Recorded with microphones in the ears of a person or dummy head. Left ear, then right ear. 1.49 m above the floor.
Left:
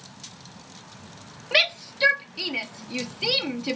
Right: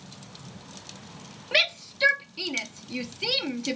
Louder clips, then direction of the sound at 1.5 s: Left 2 dB; 10° left (ahead or behind).